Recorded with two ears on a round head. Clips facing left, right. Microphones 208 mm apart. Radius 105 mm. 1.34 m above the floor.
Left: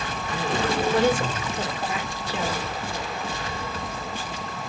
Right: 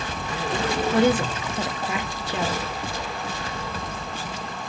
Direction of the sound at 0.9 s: 50° right (ahead or behind).